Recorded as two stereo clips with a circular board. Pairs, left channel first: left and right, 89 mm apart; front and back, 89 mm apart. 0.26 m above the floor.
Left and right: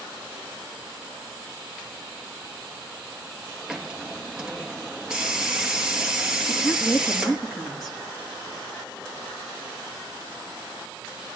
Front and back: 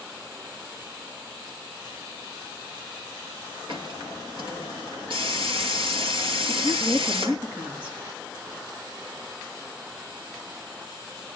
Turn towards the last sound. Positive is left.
turn(degrees=180)